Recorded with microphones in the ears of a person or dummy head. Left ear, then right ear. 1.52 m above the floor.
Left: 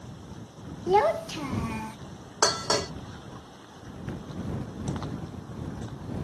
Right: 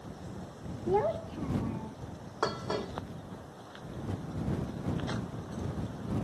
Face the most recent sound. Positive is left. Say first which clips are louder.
# left 8 dB
turn(degrees=70)  # may be behind; listen again after turning